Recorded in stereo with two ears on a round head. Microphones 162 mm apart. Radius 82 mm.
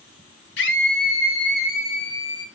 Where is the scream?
65° left (ahead or behind), 2 m; by 2.5 s 40° left (ahead or behind), 3.5 m.